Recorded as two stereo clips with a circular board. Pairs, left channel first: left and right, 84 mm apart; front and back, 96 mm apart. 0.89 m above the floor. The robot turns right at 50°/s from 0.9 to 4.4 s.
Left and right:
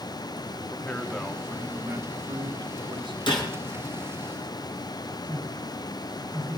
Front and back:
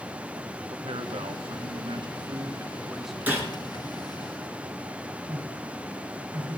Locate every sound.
0.7 s a man speaking: 160° left, 1.3 m; by 3.2 s 90° right, 1.3 m
3.3 s a gunshot: 105° left, 4 m; by 3.5 s 120° left, 4 m
5.3 s a man speaking: 150° left, 8.5 m